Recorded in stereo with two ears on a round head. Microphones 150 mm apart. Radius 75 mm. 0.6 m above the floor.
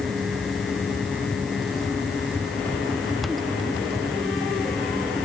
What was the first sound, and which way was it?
Only background noise.